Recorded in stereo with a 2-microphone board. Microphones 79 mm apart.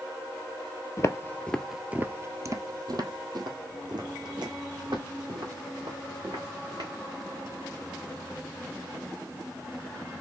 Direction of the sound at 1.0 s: 40° left (ahead or behind).